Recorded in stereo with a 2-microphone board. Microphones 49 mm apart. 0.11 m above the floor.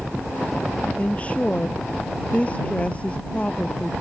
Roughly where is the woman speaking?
Left.